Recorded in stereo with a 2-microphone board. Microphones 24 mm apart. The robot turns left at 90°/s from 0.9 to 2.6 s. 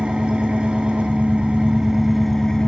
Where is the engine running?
60° right, 1.0 m; by 2.7 s 145° left, 1.0 m.